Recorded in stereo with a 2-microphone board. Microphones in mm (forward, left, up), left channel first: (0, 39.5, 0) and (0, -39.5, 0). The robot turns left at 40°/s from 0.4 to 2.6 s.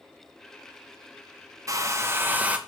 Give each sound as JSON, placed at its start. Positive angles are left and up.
{"t": 1.7, "sound": "a hair dryer", "azimuth_deg": -125, "distance_m": 1.1}